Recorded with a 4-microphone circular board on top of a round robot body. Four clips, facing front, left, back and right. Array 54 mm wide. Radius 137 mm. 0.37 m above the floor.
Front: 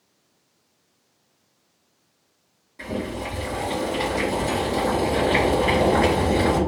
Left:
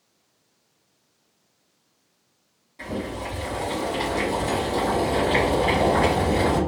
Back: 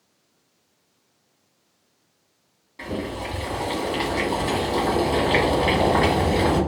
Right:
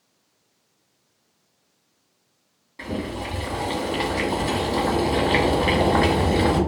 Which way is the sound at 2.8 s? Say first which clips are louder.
Right 1 dB, even; 130° right.